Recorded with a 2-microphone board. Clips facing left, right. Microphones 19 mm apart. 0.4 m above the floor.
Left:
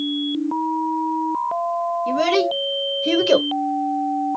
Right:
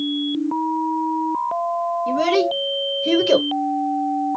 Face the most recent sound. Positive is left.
turn(degrees=15)  # may be behind; listen again after turning